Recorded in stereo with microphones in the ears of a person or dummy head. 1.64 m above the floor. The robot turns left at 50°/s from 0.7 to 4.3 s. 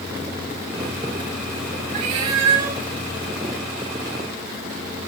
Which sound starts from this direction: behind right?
A cat meowing, at 1.9 s.